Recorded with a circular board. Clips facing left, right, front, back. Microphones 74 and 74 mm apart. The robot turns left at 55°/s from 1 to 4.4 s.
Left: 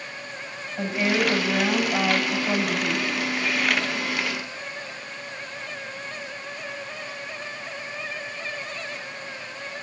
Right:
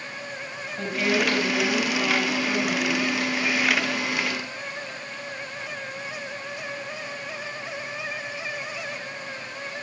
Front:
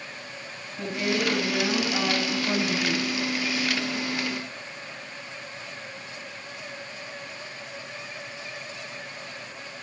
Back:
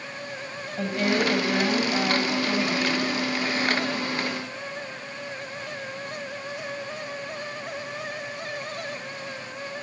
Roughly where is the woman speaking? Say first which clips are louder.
Left 1 dB, back 3 dB; behind left.